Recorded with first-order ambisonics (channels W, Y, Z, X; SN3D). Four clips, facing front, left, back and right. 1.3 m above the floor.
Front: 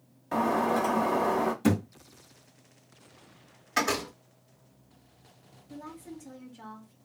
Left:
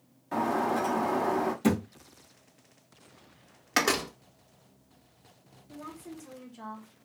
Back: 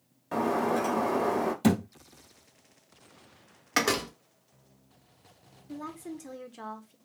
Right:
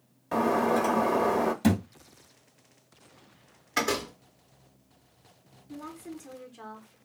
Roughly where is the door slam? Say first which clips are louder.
Left 2 dB, back 1 dB; behind left.